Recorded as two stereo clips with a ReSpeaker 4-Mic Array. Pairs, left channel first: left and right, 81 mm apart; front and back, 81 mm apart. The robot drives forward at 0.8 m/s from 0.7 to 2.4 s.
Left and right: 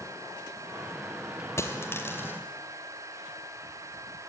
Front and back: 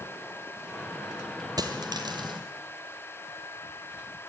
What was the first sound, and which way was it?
A dropped coin, 145° left.